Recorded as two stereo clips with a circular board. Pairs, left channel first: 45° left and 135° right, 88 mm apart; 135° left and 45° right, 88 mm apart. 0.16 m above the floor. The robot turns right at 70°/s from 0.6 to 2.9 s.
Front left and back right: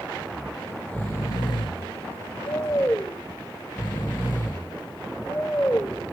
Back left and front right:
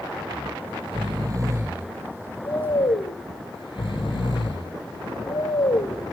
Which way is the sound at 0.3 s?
45° right.